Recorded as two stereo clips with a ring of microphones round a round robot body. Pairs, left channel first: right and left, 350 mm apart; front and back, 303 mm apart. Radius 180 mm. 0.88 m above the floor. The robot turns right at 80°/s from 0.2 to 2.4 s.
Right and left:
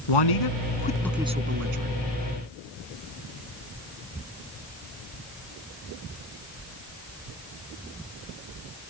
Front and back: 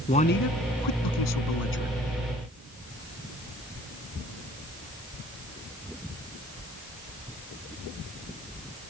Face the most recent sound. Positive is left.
turn(degrees=105)